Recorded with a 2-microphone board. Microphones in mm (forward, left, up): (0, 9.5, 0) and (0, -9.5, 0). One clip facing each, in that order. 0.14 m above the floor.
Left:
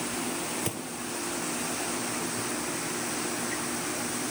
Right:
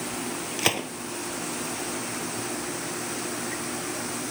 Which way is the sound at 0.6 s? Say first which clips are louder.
Right 8 dB; 65° right (ahead or behind).